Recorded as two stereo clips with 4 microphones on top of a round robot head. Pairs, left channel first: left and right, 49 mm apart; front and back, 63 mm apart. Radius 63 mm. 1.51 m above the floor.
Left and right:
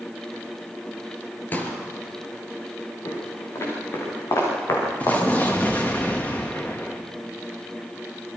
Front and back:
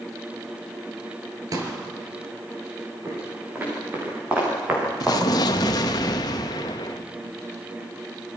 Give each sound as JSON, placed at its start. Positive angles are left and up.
{"t": 1.5, "sound": "a pop", "azimuth_deg": 145, "distance_m": 4.5}
{"t": 3.0, "sound": "footsteps", "azimuth_deg": 120, "distance_m": 8.5}
{"t": 5.0, "sound": "an explosion", "azimuth_deg": 20, "distance_m": 1.2}